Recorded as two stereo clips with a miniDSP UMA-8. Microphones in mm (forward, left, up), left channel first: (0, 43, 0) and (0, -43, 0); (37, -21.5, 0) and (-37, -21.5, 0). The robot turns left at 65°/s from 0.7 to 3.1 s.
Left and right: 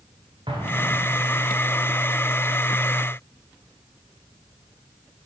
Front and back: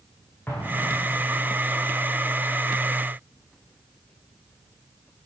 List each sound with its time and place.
0.5 s an explosion: 65° right, 5.5 m; by 1.5 s 115° right, 5.5 m